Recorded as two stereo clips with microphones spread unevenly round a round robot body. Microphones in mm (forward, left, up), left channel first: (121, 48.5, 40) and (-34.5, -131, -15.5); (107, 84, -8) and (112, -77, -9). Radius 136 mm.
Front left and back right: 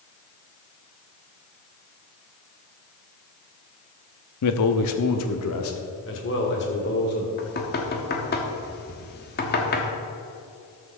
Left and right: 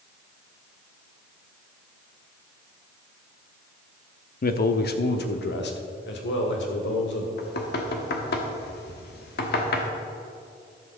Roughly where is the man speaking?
Left.